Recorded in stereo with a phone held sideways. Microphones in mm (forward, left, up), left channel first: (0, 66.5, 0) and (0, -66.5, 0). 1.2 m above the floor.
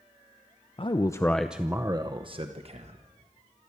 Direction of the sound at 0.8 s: 45° left (ahead or behind).